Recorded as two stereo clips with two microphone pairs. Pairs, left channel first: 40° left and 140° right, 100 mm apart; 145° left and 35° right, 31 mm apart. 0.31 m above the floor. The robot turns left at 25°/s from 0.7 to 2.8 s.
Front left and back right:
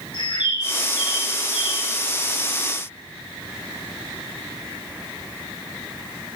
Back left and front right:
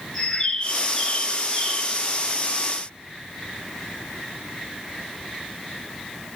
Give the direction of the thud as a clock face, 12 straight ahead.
I don't hear a thud.